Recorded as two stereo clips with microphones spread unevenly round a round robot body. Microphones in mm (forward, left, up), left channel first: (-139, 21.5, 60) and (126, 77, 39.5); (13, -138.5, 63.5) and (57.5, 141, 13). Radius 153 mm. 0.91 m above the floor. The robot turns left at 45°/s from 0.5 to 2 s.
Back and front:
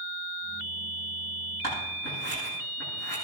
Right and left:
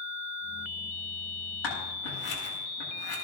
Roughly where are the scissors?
Right.